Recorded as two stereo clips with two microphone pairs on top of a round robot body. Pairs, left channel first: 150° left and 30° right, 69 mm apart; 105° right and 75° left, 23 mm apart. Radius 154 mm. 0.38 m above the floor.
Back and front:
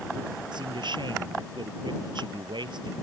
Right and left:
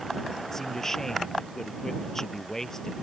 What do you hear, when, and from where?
0.5 s a man speaking: 35° right